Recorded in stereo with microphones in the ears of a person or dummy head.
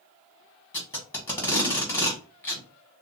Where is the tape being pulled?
15° left (ahead or behind), 1.3 m.